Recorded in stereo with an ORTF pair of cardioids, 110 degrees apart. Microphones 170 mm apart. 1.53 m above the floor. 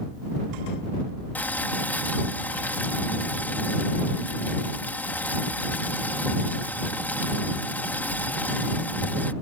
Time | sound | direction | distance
1.4 | boiling | 10° left | ?